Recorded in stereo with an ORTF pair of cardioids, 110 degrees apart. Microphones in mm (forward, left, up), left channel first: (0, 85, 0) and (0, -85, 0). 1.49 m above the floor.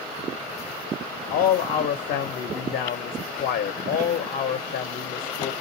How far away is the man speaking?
About 0.8 m.